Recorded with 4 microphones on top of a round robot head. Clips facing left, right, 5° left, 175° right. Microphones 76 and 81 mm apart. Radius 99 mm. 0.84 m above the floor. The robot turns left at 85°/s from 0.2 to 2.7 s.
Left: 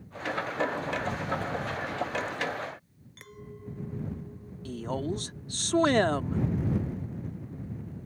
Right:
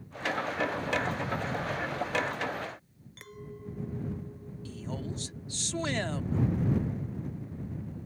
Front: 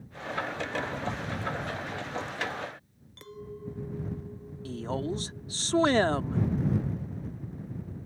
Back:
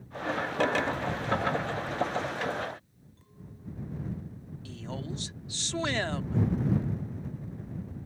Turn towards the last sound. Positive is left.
turn(degrees=55)